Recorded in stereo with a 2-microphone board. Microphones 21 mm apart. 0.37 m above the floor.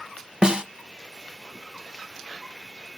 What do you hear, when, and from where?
0.4 s a snare drum: 35° right (ahead or behind), 1.1 m